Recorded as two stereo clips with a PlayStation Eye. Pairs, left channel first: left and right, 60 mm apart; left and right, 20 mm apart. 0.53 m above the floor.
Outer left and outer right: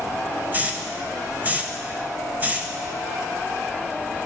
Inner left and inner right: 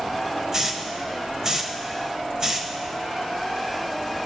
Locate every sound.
0.5 s a hiss: 30° right (ahead or behind), 0.8 m